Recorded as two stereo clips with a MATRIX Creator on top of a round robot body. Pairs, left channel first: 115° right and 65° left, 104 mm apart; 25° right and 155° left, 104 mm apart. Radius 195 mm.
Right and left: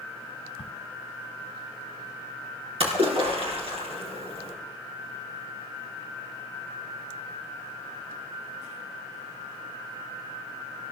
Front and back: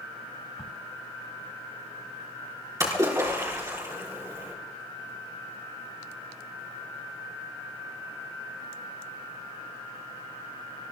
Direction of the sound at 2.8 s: 95° left.